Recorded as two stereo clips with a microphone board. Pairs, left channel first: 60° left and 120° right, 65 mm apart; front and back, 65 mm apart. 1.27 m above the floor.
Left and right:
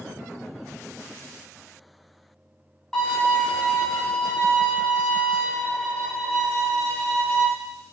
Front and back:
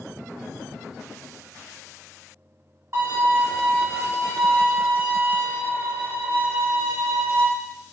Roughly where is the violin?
Behind left.